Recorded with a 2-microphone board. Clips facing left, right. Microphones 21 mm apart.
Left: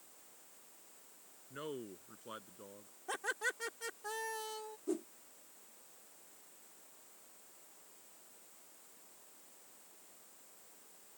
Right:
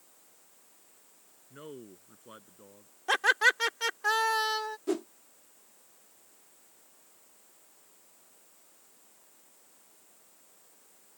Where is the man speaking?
15° left (ahead or behind); by 2.9 s 10° left (ahead or behind).